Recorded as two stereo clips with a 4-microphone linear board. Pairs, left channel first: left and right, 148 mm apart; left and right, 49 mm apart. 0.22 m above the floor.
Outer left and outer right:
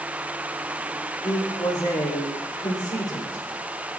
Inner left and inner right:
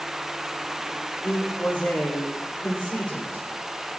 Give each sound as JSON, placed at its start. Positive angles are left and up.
{"t": 1.2, "sound": "a man speaking", "side_deg": 30, "distance_m": 9.5}